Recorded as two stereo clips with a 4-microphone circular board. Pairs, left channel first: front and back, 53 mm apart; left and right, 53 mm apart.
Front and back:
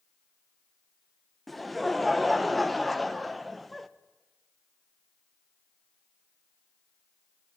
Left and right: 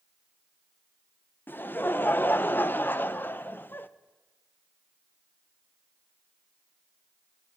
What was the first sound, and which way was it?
Laughter, 90° left.